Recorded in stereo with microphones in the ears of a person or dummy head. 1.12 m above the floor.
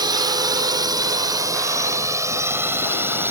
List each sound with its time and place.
0.0 s a drone: 15° right (ahead or behind); by 3.3 s 5° right (ahead or behind)